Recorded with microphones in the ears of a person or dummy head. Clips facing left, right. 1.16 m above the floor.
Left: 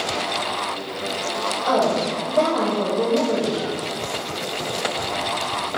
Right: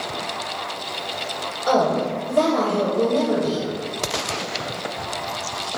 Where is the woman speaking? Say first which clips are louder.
Right 1 dB; 20° right (ahead or behind), 0.6 m.